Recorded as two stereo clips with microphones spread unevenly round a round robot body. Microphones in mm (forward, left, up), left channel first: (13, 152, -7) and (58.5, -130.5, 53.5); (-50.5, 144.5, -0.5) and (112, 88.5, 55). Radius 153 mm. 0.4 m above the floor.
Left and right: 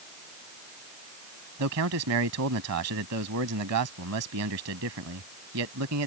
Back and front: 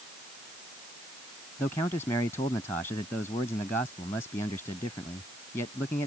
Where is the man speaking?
125° right.